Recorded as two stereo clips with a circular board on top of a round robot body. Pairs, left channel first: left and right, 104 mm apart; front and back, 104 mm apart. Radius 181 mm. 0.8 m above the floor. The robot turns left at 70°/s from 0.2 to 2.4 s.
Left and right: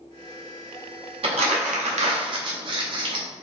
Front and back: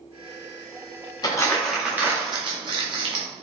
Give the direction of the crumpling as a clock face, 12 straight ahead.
2 o'clock.